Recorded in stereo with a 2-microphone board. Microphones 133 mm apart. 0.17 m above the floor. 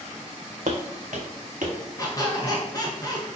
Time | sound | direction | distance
0.7 | footsteps | 65° right (ahead or behind) | 0.5 m
2.0 | a squeak | 25° left (ahead or behind) | 0.8 m